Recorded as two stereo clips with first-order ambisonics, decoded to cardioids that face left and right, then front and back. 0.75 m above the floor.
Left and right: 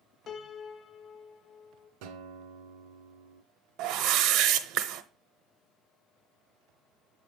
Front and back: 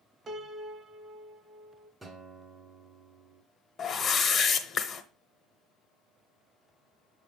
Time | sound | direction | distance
0.3 | a piano | 125° left | 0.6 m
2.0 | a guitar | 100° right | 1.4 m
3.8 | a whoosh | 65° right | 0.7 m